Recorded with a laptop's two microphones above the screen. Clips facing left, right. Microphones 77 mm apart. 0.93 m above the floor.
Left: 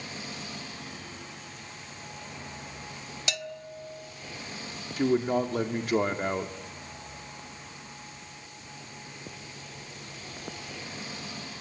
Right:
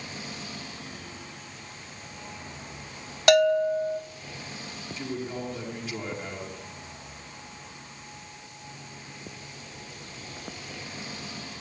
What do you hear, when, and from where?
3.3 s a bell: 60° right (ahead or behind), 0.7 m
5.0 s a man speaking: 55° left (ahead or behind), 2.0 m